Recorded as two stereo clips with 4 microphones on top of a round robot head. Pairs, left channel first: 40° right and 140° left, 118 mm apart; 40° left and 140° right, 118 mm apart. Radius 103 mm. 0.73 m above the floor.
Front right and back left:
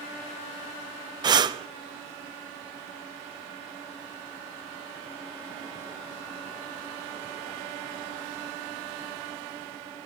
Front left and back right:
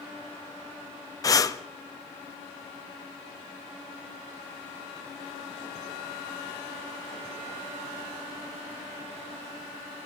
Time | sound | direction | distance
1.2 | breathing | 95° left | 0.7 m